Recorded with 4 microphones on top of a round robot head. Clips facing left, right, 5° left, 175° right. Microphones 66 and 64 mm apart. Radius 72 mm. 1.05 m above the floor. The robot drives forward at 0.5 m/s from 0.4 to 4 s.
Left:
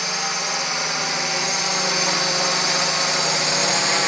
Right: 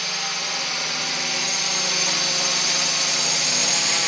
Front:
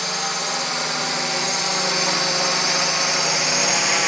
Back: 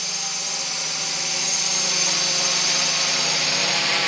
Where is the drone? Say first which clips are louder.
Left 4 dB, front 8 dB; 30° left; by 4.1 s 70° left.